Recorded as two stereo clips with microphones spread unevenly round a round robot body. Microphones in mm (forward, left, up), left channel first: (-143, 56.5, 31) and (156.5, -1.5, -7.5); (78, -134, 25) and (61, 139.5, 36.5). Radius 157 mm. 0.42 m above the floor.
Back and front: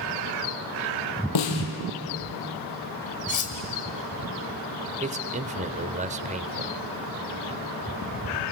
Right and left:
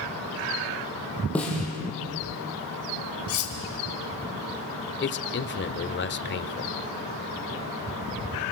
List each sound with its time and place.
1.4 s a snare drum: 175° right, 3 m
3.3 s cutlery clinking: 130° right, 2.5 m
5.0 s a man speaking: 60° right, 1.1 m